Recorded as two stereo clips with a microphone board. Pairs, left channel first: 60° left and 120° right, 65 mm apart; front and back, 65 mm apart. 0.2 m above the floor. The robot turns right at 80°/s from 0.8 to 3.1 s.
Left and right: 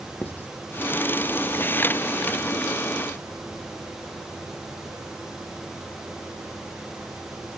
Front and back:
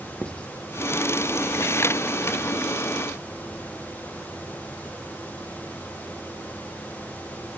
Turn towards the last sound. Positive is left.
turn(degrees=-120)